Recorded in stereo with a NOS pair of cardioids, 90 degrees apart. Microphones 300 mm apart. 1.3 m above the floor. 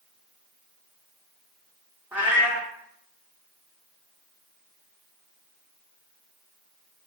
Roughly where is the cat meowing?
Ahead.